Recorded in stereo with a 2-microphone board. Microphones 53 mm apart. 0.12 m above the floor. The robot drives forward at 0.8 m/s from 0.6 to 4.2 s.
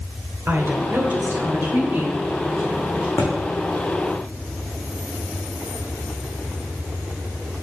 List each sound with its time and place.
0.5 s a woman speaking: 45° right (ahead or behind), 1.5 m; by 3.1 s 30° right (ahead or behind), 2 m
3.2 s a thud: 80° left, 2 m; by 3.3 s 75° left (ahead or behind), 2 m